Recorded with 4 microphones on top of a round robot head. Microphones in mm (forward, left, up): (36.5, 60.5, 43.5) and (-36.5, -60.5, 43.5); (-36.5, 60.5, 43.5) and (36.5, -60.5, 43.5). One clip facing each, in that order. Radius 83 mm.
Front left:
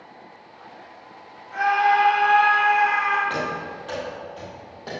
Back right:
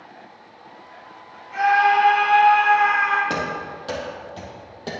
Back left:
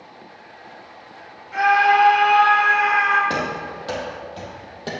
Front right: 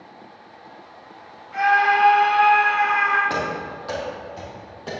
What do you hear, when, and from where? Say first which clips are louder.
1.5 s a scream: back right 2 dB, back left 3 dB; 160° left, 3.5 m; by 3.2 s 135° left, 4.5 m
3.3 s running footsteps: back right 1 dB, back left 1 dB; 170° right, 3.5 m; by 4.9 s 175° left, 3 m